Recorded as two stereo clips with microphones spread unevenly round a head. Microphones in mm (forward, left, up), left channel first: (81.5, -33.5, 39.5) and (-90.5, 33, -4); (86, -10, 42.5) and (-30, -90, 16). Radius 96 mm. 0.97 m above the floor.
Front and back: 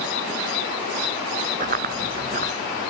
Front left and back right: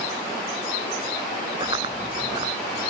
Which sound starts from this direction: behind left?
Running footsteps, at 1.6 s.